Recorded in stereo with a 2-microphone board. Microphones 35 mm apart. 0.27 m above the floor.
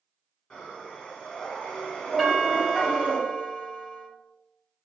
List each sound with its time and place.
0.5 s breathing: 20° left (ahead or behind), 1.7 m
2.2 s a doorbell: 5° right (ahead or behind), 1.4 m